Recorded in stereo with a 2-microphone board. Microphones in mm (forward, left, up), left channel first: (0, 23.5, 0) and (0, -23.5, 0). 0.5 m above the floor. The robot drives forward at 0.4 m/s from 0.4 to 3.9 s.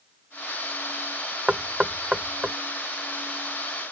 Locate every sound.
1.5 s knocking: 20° right (ahead or behind); by 2.5 s 15° right (ahead or behind)